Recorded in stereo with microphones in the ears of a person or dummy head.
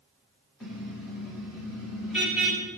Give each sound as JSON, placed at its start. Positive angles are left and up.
{"t": 0.6, "sound": "a car horn", "side_deg": -5, "distance_m": 5.5}